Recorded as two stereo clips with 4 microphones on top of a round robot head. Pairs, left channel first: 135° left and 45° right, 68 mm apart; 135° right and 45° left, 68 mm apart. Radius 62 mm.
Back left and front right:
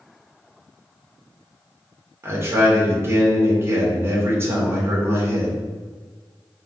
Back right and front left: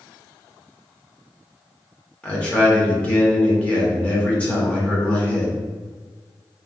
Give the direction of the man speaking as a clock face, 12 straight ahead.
2 o'clock.